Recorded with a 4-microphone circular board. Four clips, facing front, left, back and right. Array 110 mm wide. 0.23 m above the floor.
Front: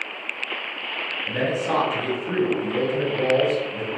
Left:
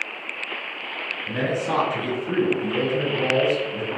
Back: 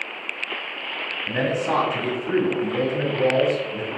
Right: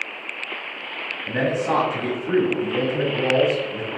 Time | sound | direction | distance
1.3 | a man speaking | 120° right | 1.2 m